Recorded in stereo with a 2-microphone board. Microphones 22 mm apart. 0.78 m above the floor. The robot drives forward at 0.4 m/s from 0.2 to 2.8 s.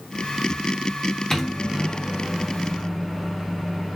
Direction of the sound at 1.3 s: 10° left (ahead or behind).